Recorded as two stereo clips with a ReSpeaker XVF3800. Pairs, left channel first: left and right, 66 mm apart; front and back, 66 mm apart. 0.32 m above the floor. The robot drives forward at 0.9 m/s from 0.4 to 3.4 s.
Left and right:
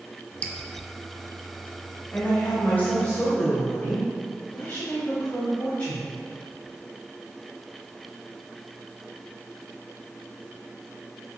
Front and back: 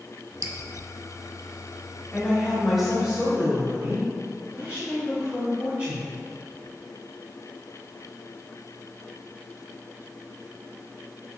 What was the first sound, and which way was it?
Dripping, 155° left.